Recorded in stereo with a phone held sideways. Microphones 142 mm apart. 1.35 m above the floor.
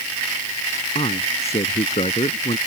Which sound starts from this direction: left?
A man speaking, at 0.9 s.